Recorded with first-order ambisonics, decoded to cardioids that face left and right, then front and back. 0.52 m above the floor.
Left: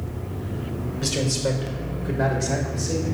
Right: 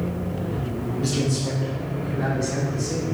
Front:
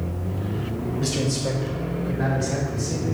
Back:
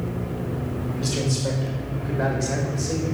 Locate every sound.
1.0 s a man speaking: 100° left, 2 m; by 3.1 s 140° left, 3 m